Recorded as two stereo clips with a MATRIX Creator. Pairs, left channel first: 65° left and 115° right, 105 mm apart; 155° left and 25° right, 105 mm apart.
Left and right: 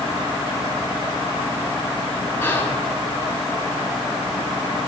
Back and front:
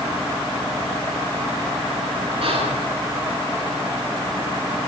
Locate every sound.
2.4 s whispering: 5° right, 6.5 m